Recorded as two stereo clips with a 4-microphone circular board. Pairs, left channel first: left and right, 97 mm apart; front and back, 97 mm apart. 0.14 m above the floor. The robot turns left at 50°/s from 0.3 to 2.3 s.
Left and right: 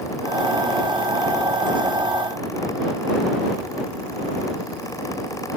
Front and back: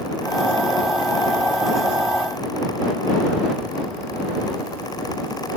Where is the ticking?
No ticking in this recording.